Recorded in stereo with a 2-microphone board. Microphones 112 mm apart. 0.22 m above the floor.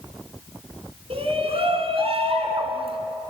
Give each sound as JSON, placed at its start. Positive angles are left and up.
{"t": 1.1, "sound": "a shout", "side_deg": -50, "distance_m": 2.5}